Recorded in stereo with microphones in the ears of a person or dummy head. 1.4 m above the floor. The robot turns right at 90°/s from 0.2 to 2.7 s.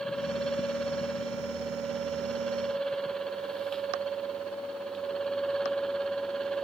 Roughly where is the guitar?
No guitar in this recording.